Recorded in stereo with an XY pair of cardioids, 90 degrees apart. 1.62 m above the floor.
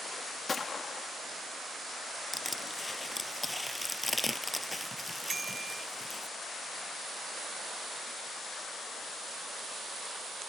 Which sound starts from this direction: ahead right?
A bicycle bell, at 5.3 s.